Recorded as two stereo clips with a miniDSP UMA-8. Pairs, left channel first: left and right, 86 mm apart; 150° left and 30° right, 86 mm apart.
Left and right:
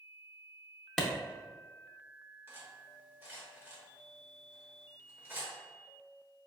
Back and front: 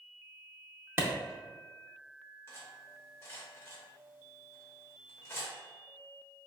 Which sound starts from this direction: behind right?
Cutlery clinking, at 2.5 s.